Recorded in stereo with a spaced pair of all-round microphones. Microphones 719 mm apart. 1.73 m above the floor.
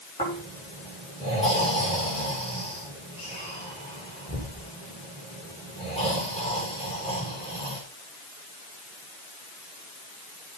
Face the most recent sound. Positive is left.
turn(degrees=10)  # may be behind; listen again after turning